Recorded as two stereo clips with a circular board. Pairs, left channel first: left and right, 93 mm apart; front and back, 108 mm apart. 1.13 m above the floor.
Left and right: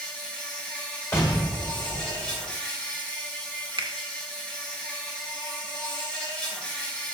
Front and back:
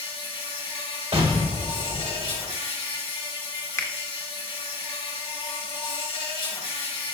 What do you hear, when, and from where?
0.0 s an insect: 10° left, 2.5 m
1.1 s an explosion: 155° left, 1.5 m
3.8 s a finger snap: 65° right, 0.9 m